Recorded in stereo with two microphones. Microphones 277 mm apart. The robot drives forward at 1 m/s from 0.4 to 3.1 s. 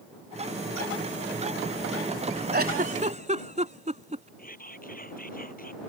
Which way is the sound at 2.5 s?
40° right (ahead or behind).